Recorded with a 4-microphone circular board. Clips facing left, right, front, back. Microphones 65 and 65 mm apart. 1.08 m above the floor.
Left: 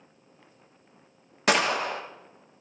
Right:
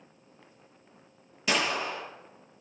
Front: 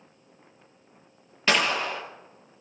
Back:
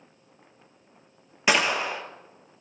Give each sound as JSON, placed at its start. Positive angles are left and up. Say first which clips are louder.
{"t": 1.5, "sound": "a gunshot", "louder": "left 5 dB, back 1 dB", "azimuth_deg": 105, "distance_m": 0.9}